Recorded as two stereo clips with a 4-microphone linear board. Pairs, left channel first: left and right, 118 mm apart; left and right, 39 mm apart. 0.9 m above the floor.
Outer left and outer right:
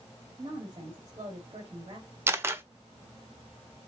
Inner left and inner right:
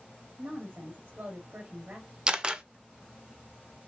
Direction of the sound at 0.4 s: 40° right (ahead or behind).